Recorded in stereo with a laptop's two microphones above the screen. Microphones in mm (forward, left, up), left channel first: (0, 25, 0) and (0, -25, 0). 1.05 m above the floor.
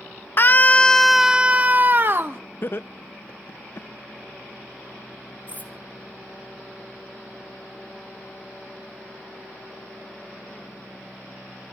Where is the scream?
45° left (ahead or behind), 0.5 m; by 2.4 s 45° right (ahead or behind), 0.9 m.